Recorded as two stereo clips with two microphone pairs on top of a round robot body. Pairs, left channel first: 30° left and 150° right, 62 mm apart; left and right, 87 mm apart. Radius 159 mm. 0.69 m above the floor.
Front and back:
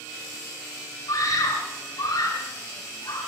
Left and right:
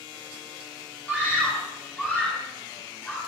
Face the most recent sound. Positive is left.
turn(degrees=20)